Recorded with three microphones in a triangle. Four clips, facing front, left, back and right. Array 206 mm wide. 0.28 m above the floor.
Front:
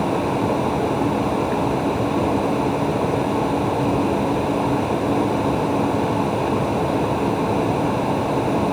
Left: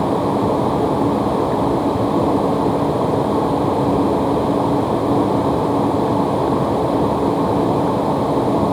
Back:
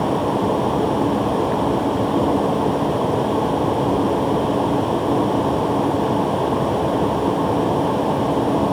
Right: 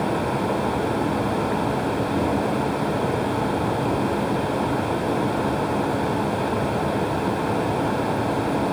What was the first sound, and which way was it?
Only background noise.